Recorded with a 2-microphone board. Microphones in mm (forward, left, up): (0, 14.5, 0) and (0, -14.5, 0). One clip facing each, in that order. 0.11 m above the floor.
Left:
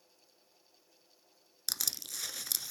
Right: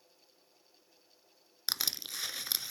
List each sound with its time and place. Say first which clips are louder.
1.7 s crushing: right 3 dB; 35° right (ahead or behind), 0.6 m